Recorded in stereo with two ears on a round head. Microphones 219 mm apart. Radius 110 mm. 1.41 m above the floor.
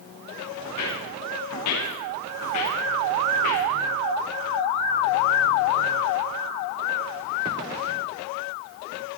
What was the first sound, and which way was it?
Footsteps, 70° left (ahead or behind).